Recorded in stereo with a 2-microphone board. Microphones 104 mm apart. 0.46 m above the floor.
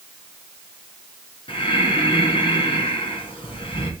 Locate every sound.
1.5 s breathing: 55° left (ahead or behind), 3 m